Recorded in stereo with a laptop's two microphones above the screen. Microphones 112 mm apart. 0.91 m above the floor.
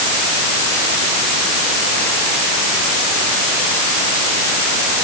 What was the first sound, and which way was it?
Only background noise.